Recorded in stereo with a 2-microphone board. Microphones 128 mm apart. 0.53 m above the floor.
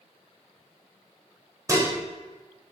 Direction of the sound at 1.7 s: 25° right (ahead or behind).